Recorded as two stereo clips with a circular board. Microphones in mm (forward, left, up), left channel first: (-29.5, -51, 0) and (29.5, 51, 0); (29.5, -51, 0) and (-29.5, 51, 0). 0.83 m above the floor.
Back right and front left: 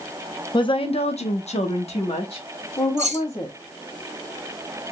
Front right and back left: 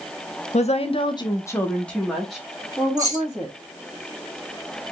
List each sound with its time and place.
0.5 s a woman speaking: 75° right, 0.8 m; by 3.6 s 165° right, 2 m
3.0 s keys jangling: 65° left, 1.3 m